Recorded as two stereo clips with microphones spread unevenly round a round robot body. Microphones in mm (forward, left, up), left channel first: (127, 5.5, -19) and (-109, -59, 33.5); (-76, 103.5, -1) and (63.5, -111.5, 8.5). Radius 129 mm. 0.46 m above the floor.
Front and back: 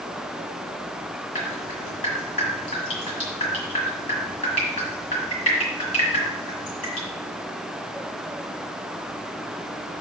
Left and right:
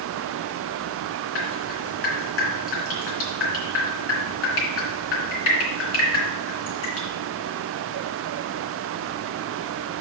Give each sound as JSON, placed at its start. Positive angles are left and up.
{"t": 1.4, "sound": "dripping", "azimuth_deg": 85, "distance_m": 3.0}